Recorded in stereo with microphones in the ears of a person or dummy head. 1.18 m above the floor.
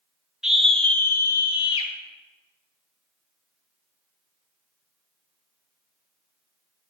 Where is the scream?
5° right (ahead or behind), 1.9 m; by 1.9 s 30° left (ahead or behind), 1.9 m.